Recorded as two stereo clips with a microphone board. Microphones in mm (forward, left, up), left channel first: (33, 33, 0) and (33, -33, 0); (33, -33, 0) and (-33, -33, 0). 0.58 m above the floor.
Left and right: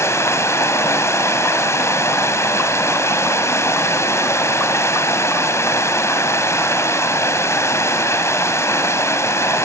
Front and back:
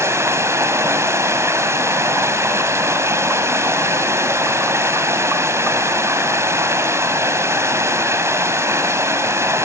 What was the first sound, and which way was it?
Running water, 135° left.